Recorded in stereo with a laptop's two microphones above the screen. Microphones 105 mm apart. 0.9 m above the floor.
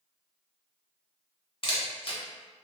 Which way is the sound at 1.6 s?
55° left (ahead or behind).